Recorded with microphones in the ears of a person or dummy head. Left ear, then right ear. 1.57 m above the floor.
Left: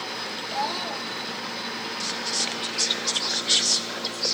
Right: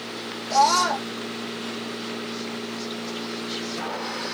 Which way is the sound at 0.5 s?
55° right (ahead or behind).